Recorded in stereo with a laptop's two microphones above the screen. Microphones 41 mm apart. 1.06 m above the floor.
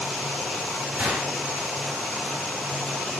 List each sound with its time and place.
1.0 s a gunshot: 30° right (ahead or behind), 4 m